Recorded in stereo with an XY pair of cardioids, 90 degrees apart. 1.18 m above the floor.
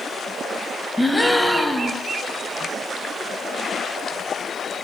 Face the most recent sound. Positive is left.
turn(degrees=5)